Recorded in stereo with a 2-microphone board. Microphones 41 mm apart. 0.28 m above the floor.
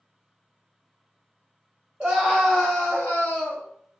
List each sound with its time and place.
2.0 s a scream: 20° right (ahead or behind), 1.0 m; by 3.7 s 45° left (ahead or behind), 1.4 m